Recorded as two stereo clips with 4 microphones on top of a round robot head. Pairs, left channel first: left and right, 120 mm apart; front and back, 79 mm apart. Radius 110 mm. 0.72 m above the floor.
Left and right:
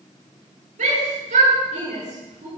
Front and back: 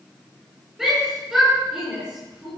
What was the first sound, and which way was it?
A shout, 95° right.